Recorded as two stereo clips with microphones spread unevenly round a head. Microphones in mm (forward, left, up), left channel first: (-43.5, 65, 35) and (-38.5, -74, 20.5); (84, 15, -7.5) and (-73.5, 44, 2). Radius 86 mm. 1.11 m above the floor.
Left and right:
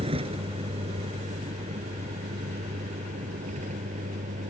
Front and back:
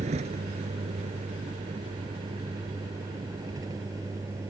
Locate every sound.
0.0 s a vehicle: 135° right; by 4.5 s 115° right